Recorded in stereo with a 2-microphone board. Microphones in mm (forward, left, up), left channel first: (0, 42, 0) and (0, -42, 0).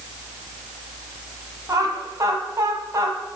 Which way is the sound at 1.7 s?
40° right (ahead or behind).